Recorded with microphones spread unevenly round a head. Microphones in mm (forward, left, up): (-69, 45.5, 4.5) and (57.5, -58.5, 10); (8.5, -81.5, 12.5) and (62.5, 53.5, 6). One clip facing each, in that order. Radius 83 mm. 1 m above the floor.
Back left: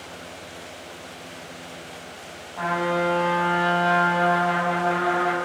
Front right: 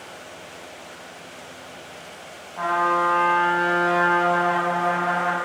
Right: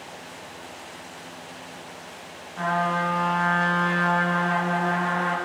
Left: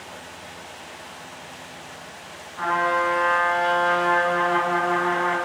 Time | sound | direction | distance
2.6 | a trumpet | 130° right | 6.5 m